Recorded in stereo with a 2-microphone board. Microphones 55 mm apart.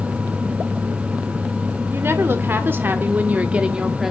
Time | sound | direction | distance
1.9 | a woman speaking | 45° right (ahead or behind) | 2 m